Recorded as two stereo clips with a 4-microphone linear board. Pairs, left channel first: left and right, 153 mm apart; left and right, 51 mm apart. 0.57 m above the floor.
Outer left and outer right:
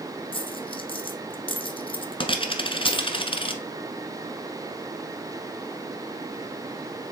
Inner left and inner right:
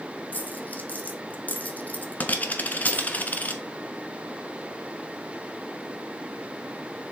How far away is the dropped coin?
About 0.9 m.